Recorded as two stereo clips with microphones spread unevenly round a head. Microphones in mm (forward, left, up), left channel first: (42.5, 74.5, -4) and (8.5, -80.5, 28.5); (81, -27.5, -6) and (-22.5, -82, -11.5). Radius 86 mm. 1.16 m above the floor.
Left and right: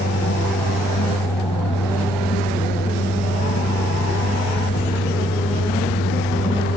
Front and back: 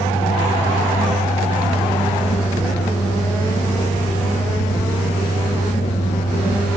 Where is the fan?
65° left.